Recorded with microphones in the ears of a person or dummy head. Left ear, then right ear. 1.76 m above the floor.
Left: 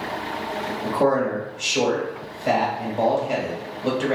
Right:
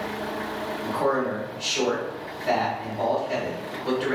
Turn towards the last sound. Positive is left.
turn(degrees=60)  # may be behind; listen again after turning